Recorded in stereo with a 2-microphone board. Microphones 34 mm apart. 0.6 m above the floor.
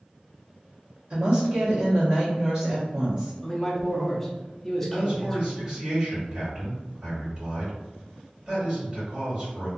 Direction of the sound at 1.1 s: 35° right (ahead or behind).